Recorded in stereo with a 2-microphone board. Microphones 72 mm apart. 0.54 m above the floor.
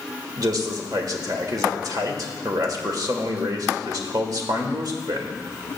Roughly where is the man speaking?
Right.